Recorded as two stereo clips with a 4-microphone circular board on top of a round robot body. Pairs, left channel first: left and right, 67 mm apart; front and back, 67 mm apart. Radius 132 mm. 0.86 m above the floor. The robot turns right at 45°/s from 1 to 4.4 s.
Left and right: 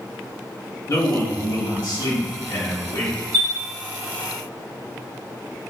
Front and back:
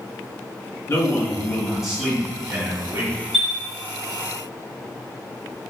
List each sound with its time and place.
0.9 s a man speaking: 55° left, 1.3 m; by 3.1 s 155° left, 1.3 m
3.3 s a chime: 90° right, 1.1 m; by 3.5 s 80° right, 1.1 m